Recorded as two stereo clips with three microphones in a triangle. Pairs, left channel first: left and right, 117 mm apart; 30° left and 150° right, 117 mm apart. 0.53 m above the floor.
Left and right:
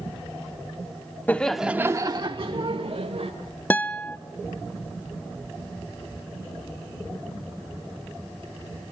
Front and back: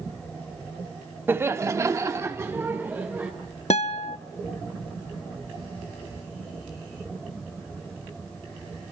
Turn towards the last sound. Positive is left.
turn(degrees=20)